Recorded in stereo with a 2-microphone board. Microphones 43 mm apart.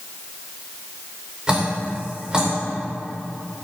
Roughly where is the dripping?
Centre.